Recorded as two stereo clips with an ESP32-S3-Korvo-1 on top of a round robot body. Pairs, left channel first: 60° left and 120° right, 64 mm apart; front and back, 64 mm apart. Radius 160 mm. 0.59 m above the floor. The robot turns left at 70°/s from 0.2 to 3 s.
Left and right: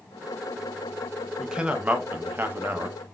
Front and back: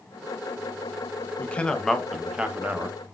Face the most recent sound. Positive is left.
turn(degrees=-155)